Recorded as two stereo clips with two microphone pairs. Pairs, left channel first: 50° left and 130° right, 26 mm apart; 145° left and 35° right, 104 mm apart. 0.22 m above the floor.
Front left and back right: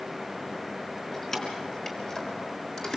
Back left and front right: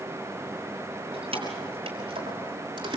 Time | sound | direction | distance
1.1 | keys jangling | 15° right | 4 m